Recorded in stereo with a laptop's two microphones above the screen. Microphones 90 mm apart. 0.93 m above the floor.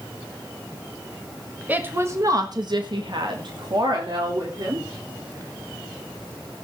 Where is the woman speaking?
20° right (ahead or behind), 1.6 m; by 4.9 s 50° right (ahead or behind), 3.5 m.